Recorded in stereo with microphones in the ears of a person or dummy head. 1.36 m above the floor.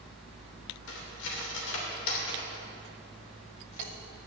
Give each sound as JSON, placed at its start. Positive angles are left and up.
{"t": 0.9, "sound": "cutlery clinking", "side_deg": 70, "distance_m": 3.0}